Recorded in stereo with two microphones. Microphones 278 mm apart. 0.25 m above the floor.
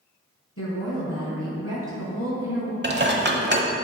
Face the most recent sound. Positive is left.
turn(degrees=-40)  # may be behind; listen again after turning